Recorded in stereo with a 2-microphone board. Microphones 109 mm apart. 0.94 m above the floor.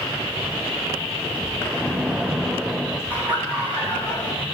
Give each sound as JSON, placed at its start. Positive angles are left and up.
{"t": 1.7, "sound": "a splash", "side_deg": -5, "distance_m": 0.8}
{"t": 3.1, "sound": "laughter", "side_deg": -15, "distance_m": 2.0}